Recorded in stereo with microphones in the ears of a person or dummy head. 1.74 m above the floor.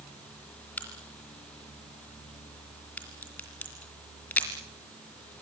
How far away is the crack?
About 4.5 m.